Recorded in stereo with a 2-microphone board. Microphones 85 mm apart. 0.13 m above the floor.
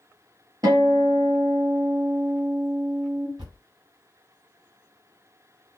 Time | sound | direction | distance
0.6 | a guitar | 50° right (ahead or behind) | 1.5 m
3.4 | a thud | 70° right (ahead or behind) | 1.8 m